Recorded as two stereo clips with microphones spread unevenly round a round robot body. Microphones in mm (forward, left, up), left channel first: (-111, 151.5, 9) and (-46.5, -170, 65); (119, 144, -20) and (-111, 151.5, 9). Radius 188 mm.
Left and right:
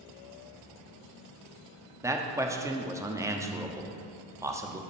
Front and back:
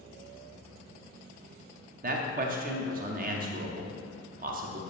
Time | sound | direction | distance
2.0 | a man speaking | 170° right | 0.7 m